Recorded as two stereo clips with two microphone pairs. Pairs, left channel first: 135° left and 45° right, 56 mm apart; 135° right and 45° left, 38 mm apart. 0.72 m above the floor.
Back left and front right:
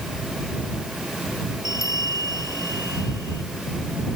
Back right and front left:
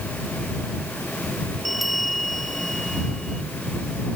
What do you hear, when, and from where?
1.6 s a bell: 135° left